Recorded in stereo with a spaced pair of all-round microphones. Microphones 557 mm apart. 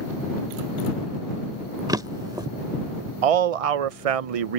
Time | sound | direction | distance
1.9 | a drawer | 5° right (ahead or behind) | ?
3.2 | a man speaking | 70° right (ahead or behind) | ?